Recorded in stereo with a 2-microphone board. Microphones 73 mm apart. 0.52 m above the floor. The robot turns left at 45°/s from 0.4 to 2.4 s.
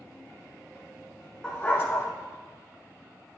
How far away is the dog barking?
About 1.1 m.